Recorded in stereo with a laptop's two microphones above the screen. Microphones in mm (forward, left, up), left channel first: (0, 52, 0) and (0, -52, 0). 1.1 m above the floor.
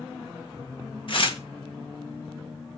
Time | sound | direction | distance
1.1 | tearing paper | 55° left (ahead or behind) | 1.1 m